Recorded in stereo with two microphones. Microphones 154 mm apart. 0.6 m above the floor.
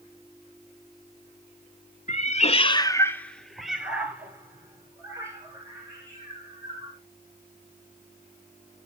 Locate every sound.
2.1 s a cat meowing: 50° left (ahead or behind), 0.8 m; by 7.0 s 25° right (ahead or behind), 3.5 m